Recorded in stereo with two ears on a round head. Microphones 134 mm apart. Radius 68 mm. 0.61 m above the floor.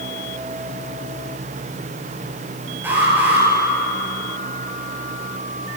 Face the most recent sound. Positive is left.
turn(degrees=-15)  # may be behind; listen again after turning